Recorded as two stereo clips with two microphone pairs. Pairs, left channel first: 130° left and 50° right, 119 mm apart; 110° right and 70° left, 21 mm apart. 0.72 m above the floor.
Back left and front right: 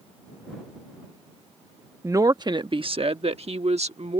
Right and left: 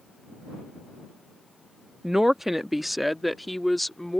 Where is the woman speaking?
10° left; by 4.2 s 30° right.